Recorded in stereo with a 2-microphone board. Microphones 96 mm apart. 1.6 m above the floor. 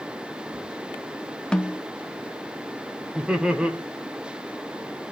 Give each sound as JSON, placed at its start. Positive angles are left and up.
{"t": 1.5, "sound": "a snare drum", "side_deg": 10, "distance_m": 1.1}
{"t": 3.1, "sound": "laughter", "side_deg": -10, "distance_m": 1.3}